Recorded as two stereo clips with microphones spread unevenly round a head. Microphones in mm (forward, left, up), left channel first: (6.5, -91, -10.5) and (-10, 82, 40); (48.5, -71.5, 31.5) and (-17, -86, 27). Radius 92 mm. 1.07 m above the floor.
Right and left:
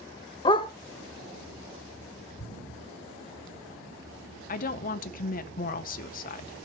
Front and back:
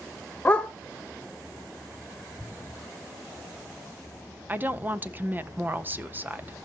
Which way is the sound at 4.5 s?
110° right.